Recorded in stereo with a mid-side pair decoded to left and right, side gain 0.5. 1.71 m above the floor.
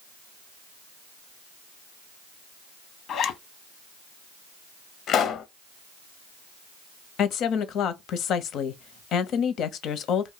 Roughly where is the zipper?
Ahead left.